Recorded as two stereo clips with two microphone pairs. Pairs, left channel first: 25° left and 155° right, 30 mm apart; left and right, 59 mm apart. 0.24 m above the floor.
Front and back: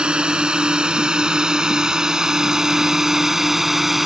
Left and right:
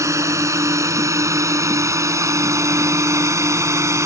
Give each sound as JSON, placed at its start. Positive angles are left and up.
{"t": 0.0, "sound": "a drone", "azimuth_deg": -105}